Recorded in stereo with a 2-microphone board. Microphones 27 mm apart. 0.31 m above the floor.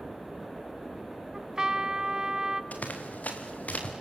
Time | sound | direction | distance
1.3 | a trumpet | 25° right (ahead or behind) | 1.0 m
2.7 | running footsteps | 75° left (ahead or behind) | 4 m